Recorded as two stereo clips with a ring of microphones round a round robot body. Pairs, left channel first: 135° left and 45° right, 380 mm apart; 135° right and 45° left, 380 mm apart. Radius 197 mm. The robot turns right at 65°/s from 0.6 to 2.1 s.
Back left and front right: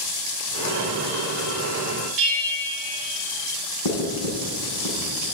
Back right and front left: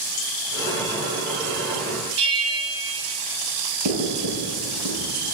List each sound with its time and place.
2.2 s a bell: 15° right, 3 m
3.9 s writing: 100° left, 4 m